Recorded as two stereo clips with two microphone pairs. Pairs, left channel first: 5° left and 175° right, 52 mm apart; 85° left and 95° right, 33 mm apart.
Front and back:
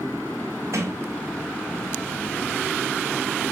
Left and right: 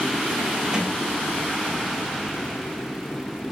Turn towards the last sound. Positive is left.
turn(degrees=-155)